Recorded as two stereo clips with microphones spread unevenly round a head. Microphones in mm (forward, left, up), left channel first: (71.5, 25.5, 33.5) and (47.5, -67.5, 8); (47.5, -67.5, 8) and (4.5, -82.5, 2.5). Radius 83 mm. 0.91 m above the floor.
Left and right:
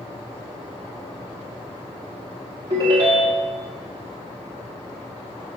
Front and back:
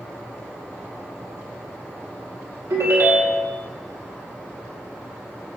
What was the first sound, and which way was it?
A ringtone, 160° right.